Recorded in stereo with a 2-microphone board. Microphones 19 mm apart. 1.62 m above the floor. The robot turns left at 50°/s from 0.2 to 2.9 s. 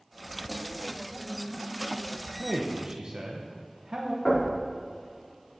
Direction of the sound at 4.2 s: 55° left (ahead or behind).